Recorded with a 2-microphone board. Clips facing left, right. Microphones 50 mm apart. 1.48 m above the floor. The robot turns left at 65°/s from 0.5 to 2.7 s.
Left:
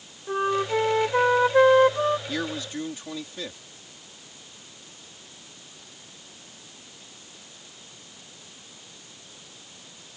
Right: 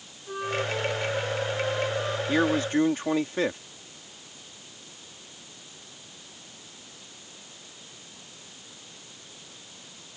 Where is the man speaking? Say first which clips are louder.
Right 7 dB; 20° right (ahead or behind); by 3.6 s 45° right (ahead or behind).